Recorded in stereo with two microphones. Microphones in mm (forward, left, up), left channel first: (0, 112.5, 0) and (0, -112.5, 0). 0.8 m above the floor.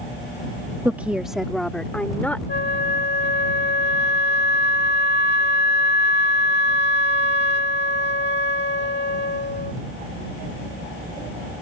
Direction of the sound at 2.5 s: 50° left (ahead or behind).